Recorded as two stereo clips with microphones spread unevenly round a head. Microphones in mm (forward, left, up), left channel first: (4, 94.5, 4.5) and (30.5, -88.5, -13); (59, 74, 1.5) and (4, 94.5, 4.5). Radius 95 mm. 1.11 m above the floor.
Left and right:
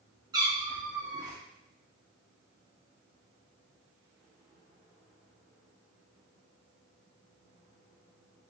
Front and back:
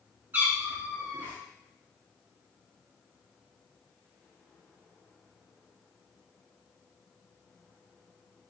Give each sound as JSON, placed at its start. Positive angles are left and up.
{"t": 0.3, "sound": "a cat meowing", "azimuth_deg": -150, "distance_m": 0.8}